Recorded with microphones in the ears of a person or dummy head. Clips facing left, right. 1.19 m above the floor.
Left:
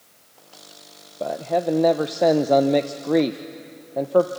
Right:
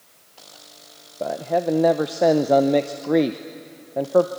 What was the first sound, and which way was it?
A man speaking, centre (ahead or behind).